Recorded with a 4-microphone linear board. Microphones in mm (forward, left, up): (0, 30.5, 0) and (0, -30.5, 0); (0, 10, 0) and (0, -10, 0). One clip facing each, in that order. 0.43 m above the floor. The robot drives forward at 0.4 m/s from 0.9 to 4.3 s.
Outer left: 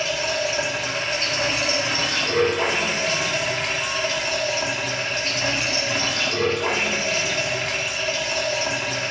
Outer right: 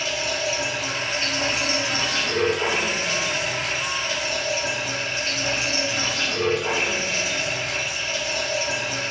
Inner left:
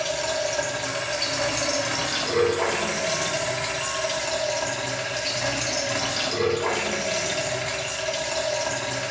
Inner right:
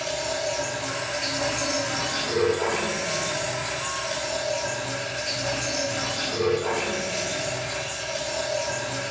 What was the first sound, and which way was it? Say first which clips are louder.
Running water: outer left 2 dB, inner left 2 dB; 55° left (ahead or behind).